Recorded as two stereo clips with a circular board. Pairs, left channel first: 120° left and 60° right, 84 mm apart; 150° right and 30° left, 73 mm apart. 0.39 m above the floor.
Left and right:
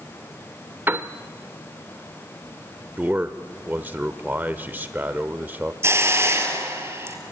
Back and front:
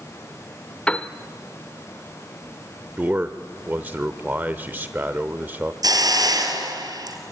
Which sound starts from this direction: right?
A piano, at 0.9 s.